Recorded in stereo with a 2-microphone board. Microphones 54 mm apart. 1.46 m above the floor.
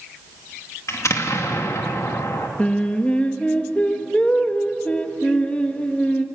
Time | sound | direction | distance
0.9 | an explosion | 65° left (ahead or behind) | 2.5 m
2.6 | singing | 25° left (ahead or behind) | 1.5 m